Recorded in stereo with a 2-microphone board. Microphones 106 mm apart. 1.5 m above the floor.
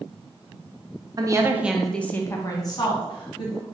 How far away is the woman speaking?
About 0.6 m.